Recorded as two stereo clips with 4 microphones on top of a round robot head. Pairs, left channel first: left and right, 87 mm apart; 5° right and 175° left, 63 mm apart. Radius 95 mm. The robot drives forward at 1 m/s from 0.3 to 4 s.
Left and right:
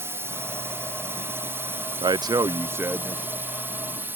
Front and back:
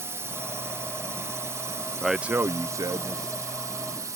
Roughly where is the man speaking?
Right.